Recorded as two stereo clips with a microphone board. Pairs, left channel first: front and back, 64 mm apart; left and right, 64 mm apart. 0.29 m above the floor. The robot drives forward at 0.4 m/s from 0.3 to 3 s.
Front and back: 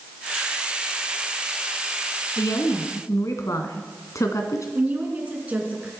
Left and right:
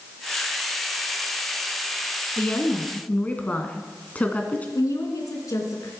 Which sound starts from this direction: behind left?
A woman speaking, at 4.8 s.